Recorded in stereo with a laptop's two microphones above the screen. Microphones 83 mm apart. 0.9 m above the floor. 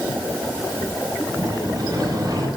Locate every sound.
1.4 s a sliding door: 45° right (ahead or behind), 8.5 m